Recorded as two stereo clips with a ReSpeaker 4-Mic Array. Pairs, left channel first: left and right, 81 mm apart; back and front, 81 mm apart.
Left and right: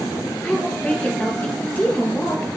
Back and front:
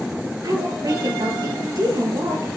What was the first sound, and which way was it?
A woman speaking, 20° left.